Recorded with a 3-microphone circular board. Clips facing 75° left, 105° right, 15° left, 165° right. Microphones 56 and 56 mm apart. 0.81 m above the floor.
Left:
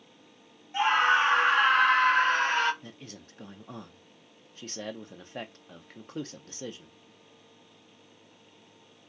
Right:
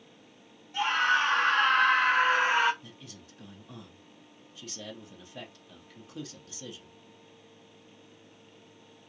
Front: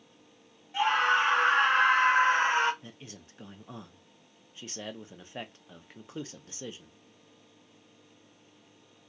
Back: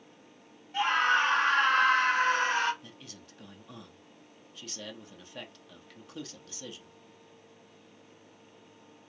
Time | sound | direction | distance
0.7 | a scream | 90° left | 1.0 m
2.8 | a man speaking | 70° left | 0.8 m